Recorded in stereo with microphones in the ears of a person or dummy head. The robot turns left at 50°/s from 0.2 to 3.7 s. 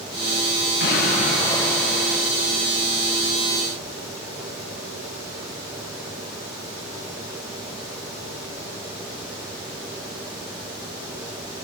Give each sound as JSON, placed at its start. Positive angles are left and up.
{"t": 0.8, "sound": "an explosion", "azimuth_deg": 55, "distance_m": 8.0}